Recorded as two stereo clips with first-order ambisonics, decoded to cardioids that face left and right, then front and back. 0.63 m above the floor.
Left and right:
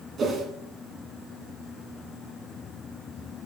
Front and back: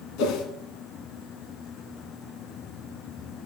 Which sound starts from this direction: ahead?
A whoosh, at 0.2 s.